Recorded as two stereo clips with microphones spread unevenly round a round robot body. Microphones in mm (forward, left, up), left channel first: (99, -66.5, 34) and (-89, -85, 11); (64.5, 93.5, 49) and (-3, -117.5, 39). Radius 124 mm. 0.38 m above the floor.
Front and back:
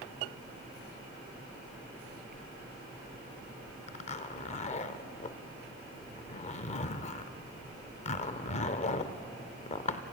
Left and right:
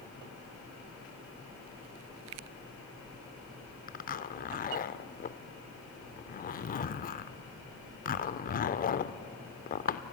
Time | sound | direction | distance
3.9 | a zipper | 50° left | 0.7 m